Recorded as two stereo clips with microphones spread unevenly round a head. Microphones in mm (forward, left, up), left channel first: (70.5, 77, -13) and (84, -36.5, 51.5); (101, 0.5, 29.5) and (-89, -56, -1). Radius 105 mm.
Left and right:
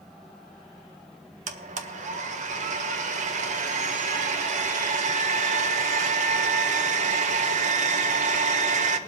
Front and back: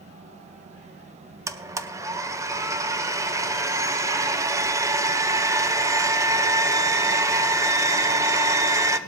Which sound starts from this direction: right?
A blender, at 1.5 s.